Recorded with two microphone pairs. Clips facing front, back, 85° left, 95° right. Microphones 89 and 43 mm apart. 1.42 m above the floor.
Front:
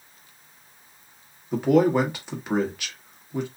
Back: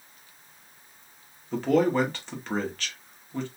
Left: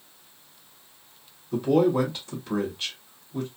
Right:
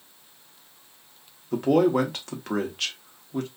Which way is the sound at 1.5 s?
80° right.